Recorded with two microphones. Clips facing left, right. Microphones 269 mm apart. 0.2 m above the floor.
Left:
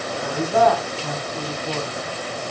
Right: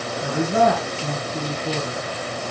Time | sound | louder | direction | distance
0.2 | a man speaking | even | 30° right (ahead or behind) | 1.9 m